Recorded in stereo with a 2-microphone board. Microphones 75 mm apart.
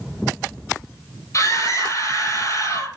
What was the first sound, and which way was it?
A scream, 45° left (ahead or behind).